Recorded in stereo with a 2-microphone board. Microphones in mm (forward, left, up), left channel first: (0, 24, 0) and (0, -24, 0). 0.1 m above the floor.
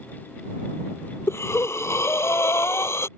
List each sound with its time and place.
1.3 s breathing: 70° left (ahead or behind)